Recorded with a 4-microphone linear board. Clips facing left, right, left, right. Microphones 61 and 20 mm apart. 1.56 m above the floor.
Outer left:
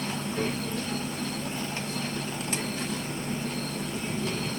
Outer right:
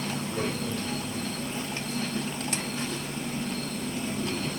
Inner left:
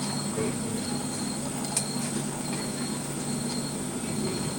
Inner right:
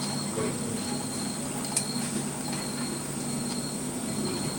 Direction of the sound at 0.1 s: 10° right (ahead or behind).